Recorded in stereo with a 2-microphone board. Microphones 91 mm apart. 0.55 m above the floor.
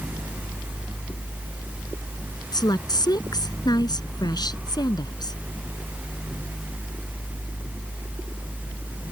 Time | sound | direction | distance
2.5 | a woman speaking | 45° left (ahead or behind) | ?